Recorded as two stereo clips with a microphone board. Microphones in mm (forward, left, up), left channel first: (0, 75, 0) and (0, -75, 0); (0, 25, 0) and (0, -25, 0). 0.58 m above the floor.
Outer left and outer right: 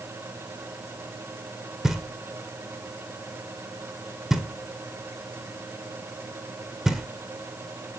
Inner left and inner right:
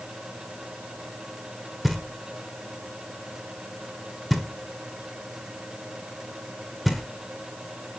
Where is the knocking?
5° right (ahead or behind), 1.6 m.